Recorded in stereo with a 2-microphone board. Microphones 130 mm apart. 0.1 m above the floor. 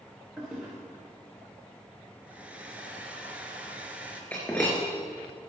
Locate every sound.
0.4 s a toilet flushing: 5° right (ahead or behind), 4.5 m
2.2 s a hair dryer: 10° right (ahead or behind), 1.8 m
4.3 s breaking glass: 15° left (ahead or behind), 5 m